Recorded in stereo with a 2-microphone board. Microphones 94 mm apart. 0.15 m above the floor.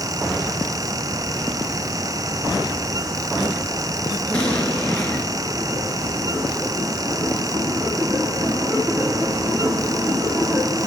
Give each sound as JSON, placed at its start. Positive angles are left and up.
{"t": 4.3, "sound": "an explosion", "side_deg": 15, "distance_m": 2.5}